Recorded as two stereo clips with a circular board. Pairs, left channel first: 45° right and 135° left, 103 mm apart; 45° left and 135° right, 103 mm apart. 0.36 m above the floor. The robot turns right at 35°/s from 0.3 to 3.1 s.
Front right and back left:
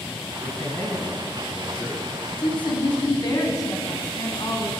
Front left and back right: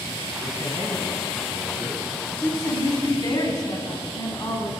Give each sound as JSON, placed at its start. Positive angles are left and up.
{"t": 0.4, "sound": "a man speaking", "azimuth_deg": -120, "distance_m": 3.0}
{"t": 2.4, "sound": "a woman speaking", "azimuth_deg": -25, "distance_m": 2.5}